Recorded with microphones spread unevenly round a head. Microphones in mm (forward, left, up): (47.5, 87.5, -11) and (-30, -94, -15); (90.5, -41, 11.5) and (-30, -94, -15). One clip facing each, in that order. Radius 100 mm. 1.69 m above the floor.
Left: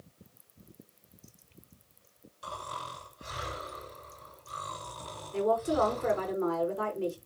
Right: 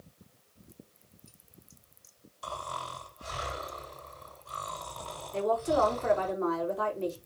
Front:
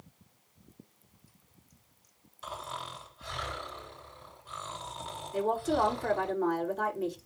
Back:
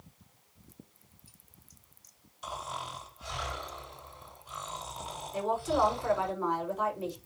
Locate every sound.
2.4 s snoring: 5° right, 6 m
5.3 s a woman speaking: 5° right, 5.5 m